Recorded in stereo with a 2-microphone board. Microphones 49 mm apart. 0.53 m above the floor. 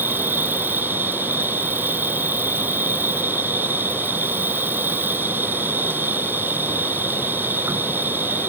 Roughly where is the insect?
Right.